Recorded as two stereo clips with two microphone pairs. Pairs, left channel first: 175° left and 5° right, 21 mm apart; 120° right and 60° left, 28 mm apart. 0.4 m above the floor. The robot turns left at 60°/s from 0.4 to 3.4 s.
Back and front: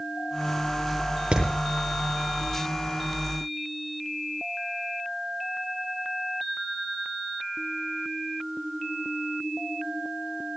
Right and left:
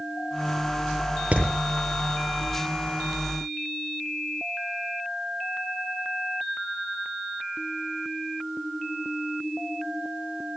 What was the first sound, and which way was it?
Hammering, 20° left.